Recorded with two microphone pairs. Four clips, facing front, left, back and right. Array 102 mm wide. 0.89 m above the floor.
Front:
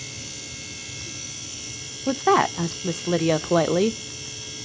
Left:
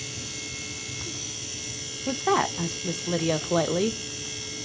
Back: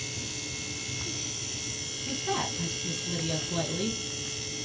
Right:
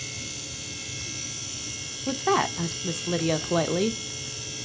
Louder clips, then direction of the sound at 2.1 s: Even, front 13 dB; straight ahead.